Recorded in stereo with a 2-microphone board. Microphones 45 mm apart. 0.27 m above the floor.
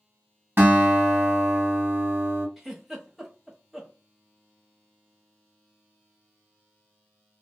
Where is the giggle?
5° right (ahead or behind), 0.9 m.